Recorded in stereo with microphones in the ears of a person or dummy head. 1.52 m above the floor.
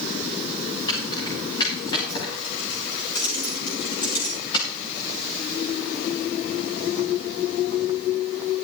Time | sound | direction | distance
0.9 | keys jangling | 25° left (ahead or behind) | 7.5 m